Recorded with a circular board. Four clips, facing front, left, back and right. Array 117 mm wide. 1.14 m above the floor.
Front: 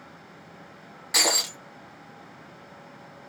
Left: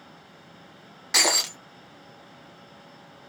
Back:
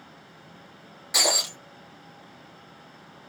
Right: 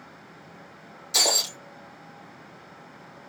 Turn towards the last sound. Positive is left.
turn(degrees=80)